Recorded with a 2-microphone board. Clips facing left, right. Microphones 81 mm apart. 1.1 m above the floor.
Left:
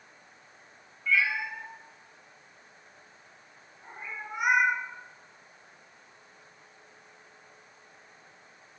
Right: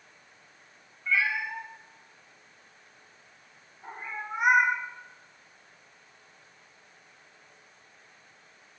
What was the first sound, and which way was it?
A cat meowing, 25° right (ahead or behind).